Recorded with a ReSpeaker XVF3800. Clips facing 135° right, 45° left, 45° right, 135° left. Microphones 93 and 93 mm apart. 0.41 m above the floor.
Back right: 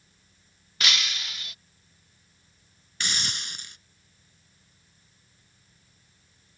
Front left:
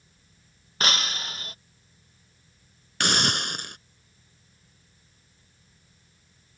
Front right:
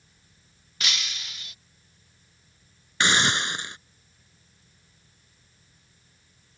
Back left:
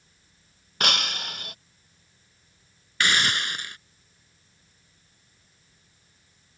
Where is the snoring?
No snoring in this recording.